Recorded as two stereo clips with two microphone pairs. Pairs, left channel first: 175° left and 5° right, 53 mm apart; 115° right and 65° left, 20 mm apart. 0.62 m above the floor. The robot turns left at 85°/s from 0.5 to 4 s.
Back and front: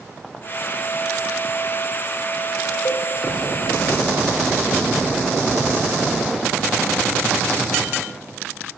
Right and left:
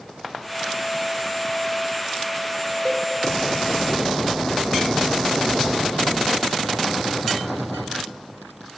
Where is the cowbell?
150° left, 0.9 m; by 3.1 s 135° left, 0.9 m.